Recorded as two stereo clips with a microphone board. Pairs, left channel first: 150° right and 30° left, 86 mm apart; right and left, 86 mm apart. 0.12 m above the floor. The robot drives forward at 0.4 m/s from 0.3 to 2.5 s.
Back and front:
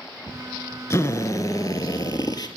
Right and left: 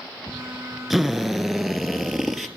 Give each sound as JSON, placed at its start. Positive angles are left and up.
{"t": 0.9, "sound": "a drill", "azimuth_deg": 180, "distance_m": 0.8}